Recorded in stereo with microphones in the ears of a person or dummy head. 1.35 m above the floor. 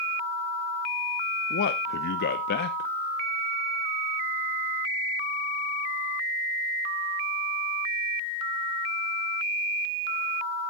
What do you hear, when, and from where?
1.5 s a man speaking: 60° left (ahead or behind), 0.8 m